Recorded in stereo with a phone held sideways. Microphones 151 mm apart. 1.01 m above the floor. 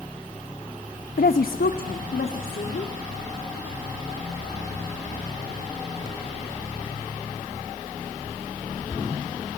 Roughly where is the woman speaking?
Left.